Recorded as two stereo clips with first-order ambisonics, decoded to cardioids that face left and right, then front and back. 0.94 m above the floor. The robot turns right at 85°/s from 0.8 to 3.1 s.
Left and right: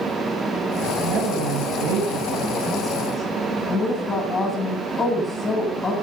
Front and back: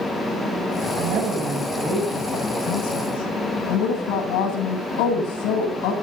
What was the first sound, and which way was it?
A woman speaking, 155° right.